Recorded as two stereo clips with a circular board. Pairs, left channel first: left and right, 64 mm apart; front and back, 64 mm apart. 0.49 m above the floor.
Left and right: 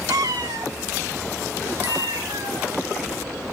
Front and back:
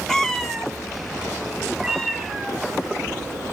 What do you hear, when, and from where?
0.1 s a cat meowing: 80° right, 0.6 m; by 2.7 s 85° right, 2.5 m